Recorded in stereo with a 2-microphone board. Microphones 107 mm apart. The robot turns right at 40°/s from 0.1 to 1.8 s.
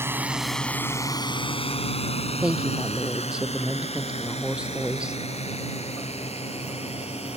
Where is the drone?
20° right (ahead or behind); by 7.4 s 70° left (ahead or behind).